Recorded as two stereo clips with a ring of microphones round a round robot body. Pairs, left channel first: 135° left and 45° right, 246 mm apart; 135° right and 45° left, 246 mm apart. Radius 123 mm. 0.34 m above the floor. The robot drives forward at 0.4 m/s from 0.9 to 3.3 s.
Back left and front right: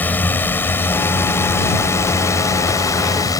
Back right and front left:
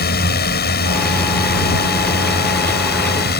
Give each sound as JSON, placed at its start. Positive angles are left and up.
{"t": 0.0, "sound": "a drone", "azimuth_deg": -145}